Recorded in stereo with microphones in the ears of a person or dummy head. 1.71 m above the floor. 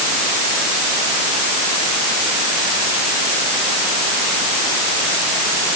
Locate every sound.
Only background noise.